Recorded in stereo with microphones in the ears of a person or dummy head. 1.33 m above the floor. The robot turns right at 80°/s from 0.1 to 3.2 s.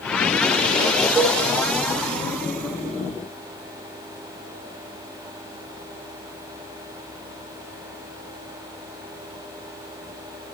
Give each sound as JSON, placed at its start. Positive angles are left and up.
{"t": 1.1, "sound": "dishes clattering", "side_deg": -15, "distance_m": 2.5}